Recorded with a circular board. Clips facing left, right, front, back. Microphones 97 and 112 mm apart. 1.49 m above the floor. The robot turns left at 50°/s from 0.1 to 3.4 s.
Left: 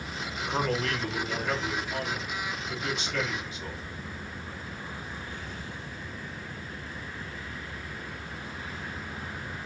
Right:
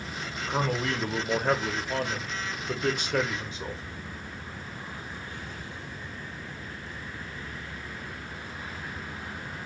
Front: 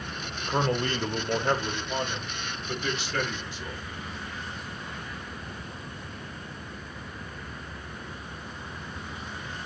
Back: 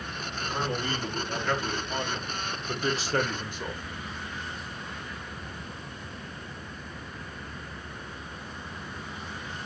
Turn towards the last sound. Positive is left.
turn(degrees=-145)